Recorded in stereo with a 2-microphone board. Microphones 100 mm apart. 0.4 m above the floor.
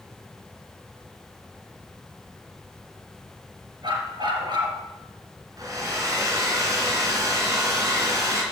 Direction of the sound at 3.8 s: 45° right (ahead or behind).